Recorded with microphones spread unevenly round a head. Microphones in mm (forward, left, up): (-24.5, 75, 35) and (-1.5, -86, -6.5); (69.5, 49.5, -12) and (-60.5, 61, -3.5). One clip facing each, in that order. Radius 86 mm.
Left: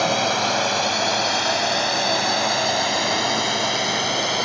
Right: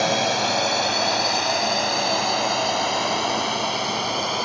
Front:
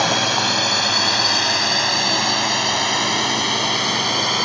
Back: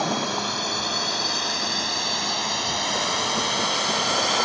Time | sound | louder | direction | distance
0.0 | a drone | left 1 dB, front 5 dB | 5° left | ?